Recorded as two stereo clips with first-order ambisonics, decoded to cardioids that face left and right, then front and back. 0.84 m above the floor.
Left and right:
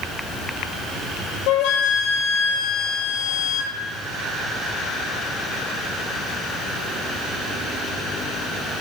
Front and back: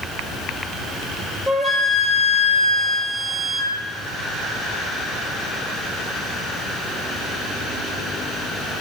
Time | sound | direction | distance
1.5 | a flute | 95° left | 1.3 m